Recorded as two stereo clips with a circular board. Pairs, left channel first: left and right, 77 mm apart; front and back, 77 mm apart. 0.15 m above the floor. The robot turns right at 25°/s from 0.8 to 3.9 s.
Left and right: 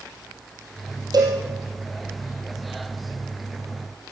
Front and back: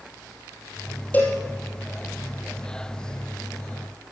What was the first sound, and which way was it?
A cowbell, 70° right.